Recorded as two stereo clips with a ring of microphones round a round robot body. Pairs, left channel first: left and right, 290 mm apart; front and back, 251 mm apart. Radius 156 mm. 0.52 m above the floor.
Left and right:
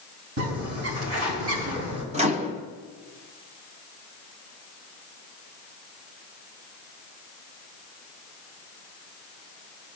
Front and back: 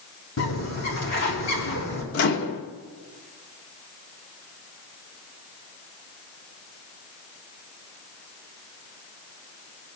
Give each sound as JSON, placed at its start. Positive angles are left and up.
{"t": 0.4, "sound": "a bird", "azimuth_deg": -50, "distance_m": 4.5}
{"t": 2.1, "sound": "a microwave", "azimuth_deg": -25, "distance_m": 1.4}